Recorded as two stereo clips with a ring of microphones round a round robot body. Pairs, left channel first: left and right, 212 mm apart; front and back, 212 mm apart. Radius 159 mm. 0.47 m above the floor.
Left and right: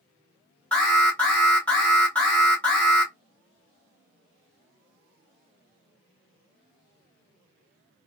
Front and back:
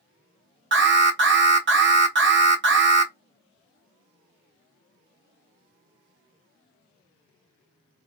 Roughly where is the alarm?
Behind.